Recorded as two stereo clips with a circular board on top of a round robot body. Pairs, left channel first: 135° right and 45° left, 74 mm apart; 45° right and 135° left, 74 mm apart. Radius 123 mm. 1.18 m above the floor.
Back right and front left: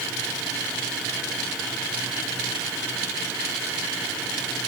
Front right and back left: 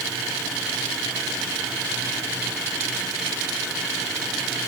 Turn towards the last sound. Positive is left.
No sound to turn to.